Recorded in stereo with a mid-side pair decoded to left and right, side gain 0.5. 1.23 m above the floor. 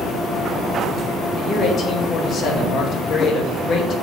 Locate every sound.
1.4 s a man speaking: 55° left, 2 m